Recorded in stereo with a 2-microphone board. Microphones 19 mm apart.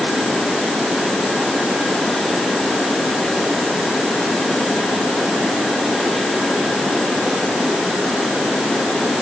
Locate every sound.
Only background noise.